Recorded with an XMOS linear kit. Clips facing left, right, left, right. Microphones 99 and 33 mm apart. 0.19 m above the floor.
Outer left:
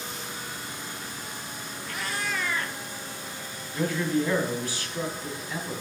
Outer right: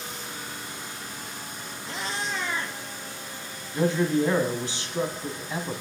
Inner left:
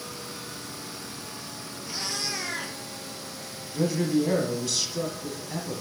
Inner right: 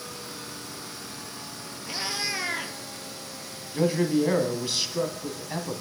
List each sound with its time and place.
1.9 s a cat meowing: 25° right (ahead or behind), 0.9 m
3.7 s a man speaking: 25° right (ahead or behind), 1.2 m